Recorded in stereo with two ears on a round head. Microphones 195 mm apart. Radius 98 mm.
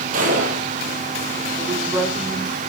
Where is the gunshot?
40° right (ahead or behind), 5.5 m.